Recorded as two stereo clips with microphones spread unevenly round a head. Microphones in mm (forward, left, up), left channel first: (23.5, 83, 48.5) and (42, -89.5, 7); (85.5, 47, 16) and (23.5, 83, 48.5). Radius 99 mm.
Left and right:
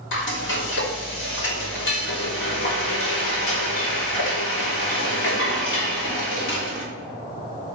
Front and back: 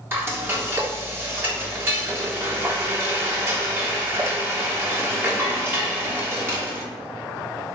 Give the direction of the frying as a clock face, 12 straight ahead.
9 o'clock.